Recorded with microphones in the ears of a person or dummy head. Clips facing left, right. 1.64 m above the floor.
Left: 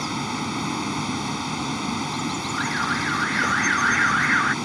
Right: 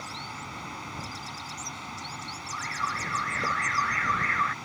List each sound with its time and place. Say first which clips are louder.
0.0 s a vehicle: left 14 dB; 75° left (ahead or behind)
2.5 s an alarm: left 11 dB; 15° left (ahead or behind)